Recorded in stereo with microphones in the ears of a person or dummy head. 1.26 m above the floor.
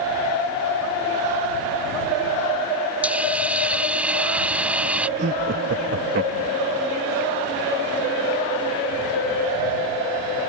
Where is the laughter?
60° right (ahead or behind).